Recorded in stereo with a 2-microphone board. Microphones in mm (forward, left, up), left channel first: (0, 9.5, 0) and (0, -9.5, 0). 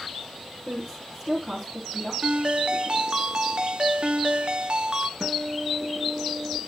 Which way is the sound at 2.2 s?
40° right (ahead or behind).